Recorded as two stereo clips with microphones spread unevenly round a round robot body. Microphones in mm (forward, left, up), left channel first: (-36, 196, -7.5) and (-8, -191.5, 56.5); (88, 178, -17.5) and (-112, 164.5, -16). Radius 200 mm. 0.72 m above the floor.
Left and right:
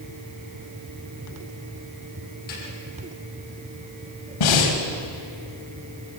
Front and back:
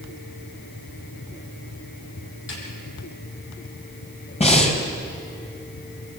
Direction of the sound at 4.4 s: 60° left.